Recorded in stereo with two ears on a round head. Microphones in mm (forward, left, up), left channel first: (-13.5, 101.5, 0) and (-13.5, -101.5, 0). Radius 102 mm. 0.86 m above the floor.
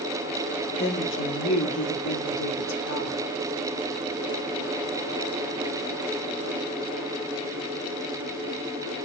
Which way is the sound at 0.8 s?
45° left (ahead or behind).